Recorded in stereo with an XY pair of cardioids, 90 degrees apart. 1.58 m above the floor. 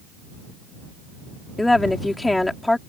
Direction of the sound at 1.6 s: 15° left.